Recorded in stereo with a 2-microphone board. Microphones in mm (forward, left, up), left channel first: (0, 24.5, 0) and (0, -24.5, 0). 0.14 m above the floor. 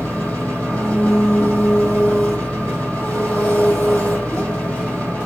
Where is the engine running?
35° left (ahead or behind), 4.5 m.